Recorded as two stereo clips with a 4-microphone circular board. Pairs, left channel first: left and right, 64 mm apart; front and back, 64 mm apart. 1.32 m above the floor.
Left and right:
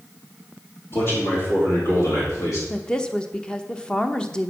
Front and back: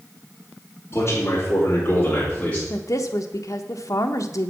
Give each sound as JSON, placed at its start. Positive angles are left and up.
{"t": 0.9, "sound": "a man speaking", "azimuth_deg": 50, "distance_m": 3.0}
{"t": 2.7, "sound": "a woman speaking", "azimuth_deg": 15, "distance_m": 0.8}